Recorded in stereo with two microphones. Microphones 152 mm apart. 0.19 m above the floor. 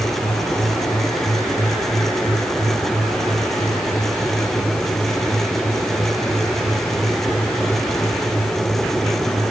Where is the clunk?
No clunk in this recording.